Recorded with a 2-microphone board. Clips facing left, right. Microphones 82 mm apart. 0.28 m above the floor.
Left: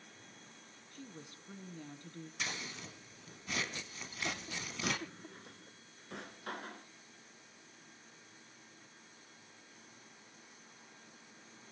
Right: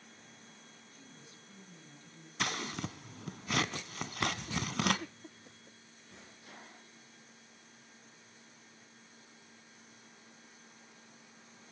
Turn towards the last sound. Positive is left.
turn(degrees=70)  # may be behind; listen again after turning